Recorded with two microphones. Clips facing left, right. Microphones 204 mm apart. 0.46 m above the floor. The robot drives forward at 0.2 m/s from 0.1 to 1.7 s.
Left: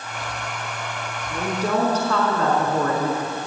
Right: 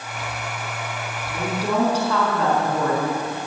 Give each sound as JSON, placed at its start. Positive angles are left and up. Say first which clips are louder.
{"t": 1.3, "sound": "a woman speaking", "louder": "left 1 dB", "side_deg": -10, "distance_m": 4.5}